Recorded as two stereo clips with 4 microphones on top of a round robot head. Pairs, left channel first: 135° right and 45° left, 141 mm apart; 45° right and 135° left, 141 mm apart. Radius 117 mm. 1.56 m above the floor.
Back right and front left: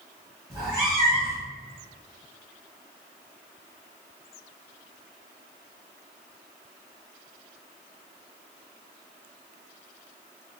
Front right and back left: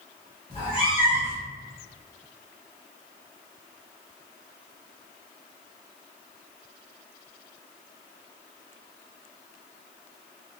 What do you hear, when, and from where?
0.5 s a cat meowing: 10° right, 1.1 m